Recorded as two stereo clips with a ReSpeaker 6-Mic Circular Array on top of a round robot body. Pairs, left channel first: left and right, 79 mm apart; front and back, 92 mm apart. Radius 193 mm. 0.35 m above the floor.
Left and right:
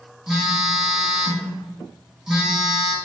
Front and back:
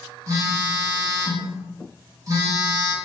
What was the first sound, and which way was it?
A phone buzzing, 170° right.